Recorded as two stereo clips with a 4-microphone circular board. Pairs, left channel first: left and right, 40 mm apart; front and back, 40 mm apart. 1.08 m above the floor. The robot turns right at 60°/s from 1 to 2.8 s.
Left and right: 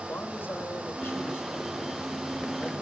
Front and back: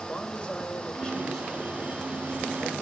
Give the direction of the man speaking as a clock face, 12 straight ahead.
10 o'clock.